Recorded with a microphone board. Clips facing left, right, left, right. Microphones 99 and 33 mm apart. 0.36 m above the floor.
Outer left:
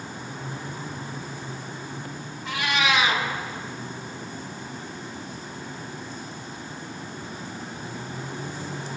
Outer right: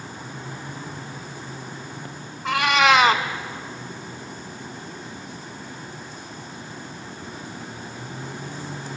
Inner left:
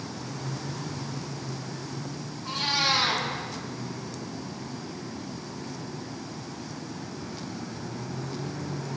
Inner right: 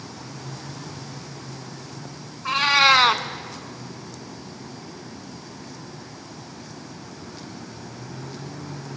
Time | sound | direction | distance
2.5 | a cat meowing | 85° right | 0.6 m